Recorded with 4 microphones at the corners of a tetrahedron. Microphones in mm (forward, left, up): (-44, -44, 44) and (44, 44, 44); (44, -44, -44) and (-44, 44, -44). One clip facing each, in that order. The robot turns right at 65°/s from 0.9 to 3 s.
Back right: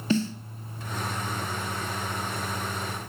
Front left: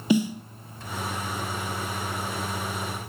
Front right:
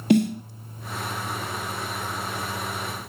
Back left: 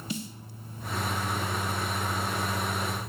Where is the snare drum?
30° right, 0.7 m.